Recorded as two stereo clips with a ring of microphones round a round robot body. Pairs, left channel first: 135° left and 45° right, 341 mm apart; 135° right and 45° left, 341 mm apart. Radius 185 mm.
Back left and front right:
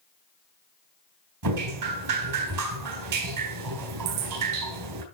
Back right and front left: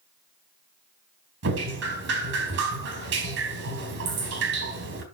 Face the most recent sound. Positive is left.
turn(degrees=-15)